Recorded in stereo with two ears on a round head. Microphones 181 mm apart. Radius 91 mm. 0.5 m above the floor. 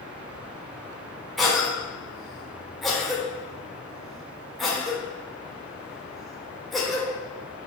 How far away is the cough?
About 1.5 m.